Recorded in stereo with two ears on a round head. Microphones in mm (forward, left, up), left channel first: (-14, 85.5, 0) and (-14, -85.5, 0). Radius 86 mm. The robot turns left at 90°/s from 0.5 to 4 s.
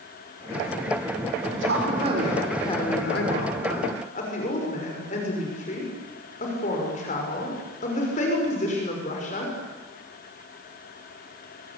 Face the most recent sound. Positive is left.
turn(degrees=40)